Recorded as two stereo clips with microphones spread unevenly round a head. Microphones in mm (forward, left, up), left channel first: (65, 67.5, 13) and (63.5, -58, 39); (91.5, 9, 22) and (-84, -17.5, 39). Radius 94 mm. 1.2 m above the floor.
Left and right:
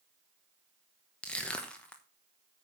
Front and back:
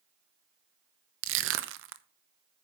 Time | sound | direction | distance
1.2 | crushing | 170° left | 0.9 m